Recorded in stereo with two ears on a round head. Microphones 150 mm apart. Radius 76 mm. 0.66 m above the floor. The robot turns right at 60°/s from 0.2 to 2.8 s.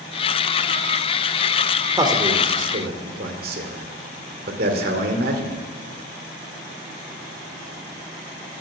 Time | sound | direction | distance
2.0 | a man speaking | 20° right (ahead or behind) | 2 m